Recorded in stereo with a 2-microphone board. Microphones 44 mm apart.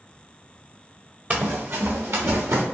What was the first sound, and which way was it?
Running footsteps, 35° right (ahead or behind).